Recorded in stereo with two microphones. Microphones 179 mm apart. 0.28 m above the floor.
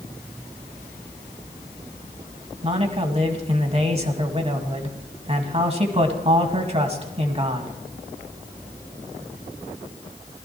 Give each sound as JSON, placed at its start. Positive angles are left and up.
{"t": 2.6, "sound": "a man speaking", "side_deg": -40, "distance_m": 2.0}